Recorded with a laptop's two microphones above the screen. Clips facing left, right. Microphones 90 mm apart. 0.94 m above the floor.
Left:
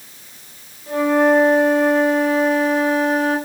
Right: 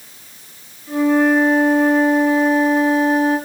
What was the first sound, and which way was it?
A flute, 75° left (ahead or behind).